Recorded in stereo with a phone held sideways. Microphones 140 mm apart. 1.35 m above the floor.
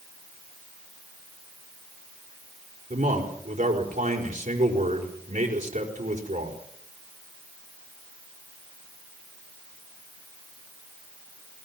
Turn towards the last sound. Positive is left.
turn(degrees=-70)  # may be behind; listen again after turning